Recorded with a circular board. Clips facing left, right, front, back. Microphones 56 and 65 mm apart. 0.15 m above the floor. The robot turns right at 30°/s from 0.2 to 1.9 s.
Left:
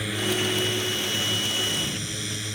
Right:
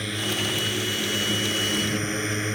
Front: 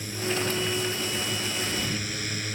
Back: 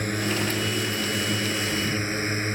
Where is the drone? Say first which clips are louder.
Left 2 dB, back 3 dB; 175° left; by 2.5 s 135° right.